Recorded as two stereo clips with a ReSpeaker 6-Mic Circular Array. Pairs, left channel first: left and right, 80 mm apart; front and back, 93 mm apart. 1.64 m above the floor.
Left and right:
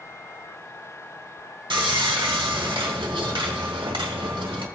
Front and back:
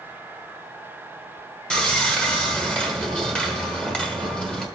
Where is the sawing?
80° right, 1.1 m.